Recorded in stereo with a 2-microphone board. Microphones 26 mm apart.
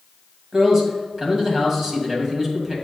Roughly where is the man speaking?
Right.